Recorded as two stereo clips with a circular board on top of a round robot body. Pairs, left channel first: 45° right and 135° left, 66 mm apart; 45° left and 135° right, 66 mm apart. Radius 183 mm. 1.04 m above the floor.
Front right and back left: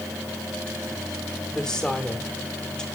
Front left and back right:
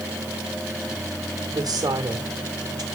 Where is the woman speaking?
130° right, 1.9 m.